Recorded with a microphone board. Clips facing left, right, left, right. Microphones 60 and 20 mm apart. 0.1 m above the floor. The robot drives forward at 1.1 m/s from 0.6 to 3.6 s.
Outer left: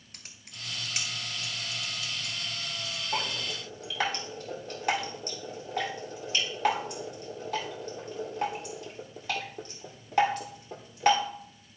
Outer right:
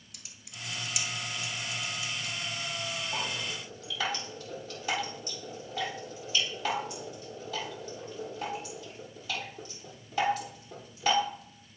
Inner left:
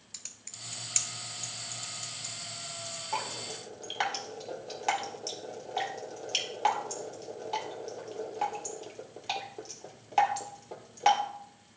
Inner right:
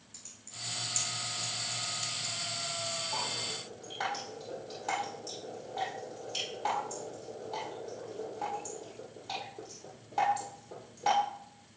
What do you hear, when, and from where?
0.1 s typing on a keyboard: 45° left (ahead or behind), 0.9 m; by 3.0 s 15° left (ahead or behind), 2.5 m
3.1 s dripping: 55° left (ahead or behind), 2 m; by 11.2 s 60° left (ahead or behind), 2.0 m